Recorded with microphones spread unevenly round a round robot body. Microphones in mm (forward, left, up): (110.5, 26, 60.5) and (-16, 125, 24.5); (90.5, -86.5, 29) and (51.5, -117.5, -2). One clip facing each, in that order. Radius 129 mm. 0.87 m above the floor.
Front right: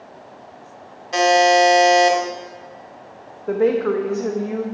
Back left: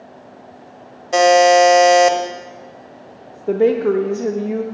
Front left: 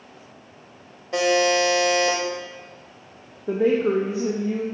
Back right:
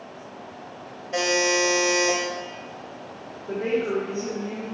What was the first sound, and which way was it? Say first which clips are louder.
A buzzer: back left 4 dB, front left 3 dB; 100° left.